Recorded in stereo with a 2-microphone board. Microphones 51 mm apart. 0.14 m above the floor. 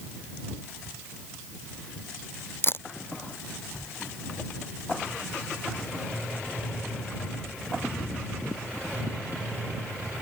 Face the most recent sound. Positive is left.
turn(degrees=45)  # may be behind; listen again after turning